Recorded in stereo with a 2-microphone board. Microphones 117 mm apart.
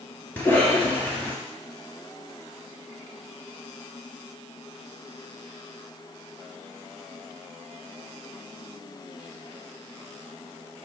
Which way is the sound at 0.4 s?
15° left (ahead or behind).